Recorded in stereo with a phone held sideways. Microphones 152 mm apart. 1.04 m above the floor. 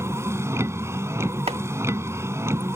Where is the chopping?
40° right (ahead or behind).